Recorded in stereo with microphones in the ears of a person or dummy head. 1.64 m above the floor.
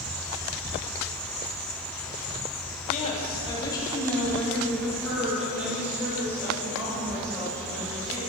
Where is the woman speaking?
40° left (ahead or behind), 3.5 m; by 8.2 s 25° right (ahead or behind), 9 m.